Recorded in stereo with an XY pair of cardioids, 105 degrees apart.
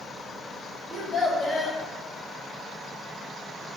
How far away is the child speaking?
About 0.9 m.